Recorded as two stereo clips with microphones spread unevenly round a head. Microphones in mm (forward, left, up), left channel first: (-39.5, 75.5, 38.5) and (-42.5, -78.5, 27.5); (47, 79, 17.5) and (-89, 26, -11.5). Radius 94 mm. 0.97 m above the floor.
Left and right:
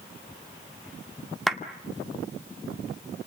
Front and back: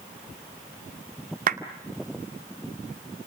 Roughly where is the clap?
Behind.